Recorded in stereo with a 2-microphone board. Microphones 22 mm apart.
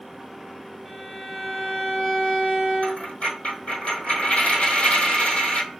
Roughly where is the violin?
Left.